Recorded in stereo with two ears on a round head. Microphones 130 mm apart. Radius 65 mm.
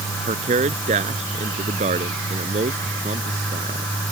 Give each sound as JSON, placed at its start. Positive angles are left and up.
{"t": 0.3, "sound": "a man speaking", "side_deg": -50}